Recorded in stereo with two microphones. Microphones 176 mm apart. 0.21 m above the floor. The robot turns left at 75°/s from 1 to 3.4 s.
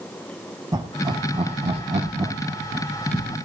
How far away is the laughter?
About 2.0 m.